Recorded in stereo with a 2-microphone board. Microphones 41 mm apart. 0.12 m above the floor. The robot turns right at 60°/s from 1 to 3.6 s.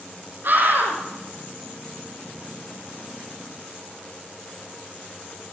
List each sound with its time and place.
0.4 s a scream: 55° right (ahead or behind), 5.5 m